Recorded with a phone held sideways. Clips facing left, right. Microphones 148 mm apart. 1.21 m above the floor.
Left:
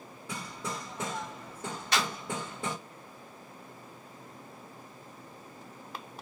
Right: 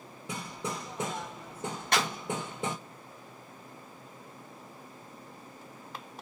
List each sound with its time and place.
0.3 s hammering: 20° right (ahead or behind), 0.9 m
1.9 s a clap: 55° right (ahead or behind), 1.0 m